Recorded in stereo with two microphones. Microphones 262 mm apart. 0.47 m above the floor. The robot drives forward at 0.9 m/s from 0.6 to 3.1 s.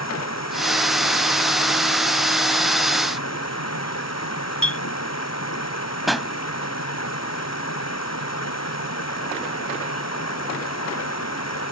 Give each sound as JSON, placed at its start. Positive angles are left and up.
{"t": 0.0, "sound": "running water", "side_deg": 80}
{"t": 4.6, "sound": "a clink", "side_deg": 50}
{"t": 6.1, "sound": "a pop", "side_deg": 0}